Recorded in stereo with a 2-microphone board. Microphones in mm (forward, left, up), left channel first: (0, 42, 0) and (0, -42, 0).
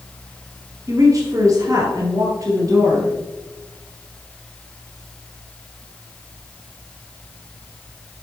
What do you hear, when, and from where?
0.9 s a woman speaking: 40° right (ahead or behind), 2 m